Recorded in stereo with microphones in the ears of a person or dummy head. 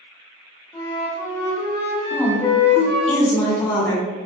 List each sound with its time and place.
0.7 s a flute: 25° left (ahead or behind), 0.8 m
2.1 s a woman speaking: 10° left (ahead or behind), 1.6 m